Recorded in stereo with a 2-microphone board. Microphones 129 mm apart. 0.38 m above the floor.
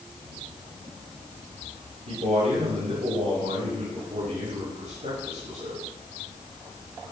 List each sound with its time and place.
2.1 s a man speaking: 65° right (ahead or behind), 4 m